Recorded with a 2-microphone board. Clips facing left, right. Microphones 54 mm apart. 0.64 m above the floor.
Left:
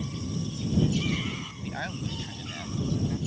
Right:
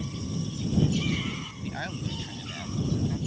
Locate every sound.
1.6 s a man speaking: 5° left (ahead or behind); by 3.2 s centre (ahead or behind)